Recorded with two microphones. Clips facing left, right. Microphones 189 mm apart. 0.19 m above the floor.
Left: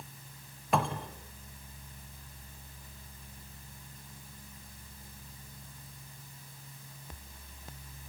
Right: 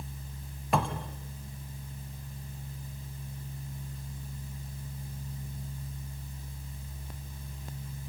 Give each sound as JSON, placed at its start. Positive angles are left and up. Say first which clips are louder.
{"t": 0.7, "sound": "a cupboard door", "louder": "right 1 dB", "side_deg": 0, "distance_m": 1.3}